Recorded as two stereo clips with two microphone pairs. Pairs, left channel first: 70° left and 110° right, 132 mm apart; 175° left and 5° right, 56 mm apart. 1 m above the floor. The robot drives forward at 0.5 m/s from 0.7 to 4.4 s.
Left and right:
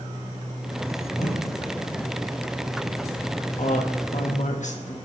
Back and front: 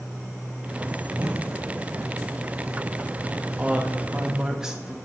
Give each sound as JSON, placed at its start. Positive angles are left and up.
{"t": 1.1, "sound": "a whoosh", "azimuth_deg": 55, "distance_m": 3.5}
{"t": 3.6, "sound": "a woman speaking", "azimuth_deg": 60, "distance_m": 1.8}